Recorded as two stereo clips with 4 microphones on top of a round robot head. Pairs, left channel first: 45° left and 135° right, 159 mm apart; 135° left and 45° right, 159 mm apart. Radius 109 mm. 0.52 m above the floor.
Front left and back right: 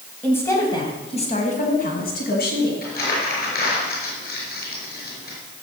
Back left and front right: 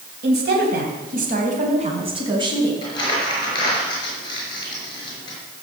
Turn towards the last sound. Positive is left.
turn(degrees=75)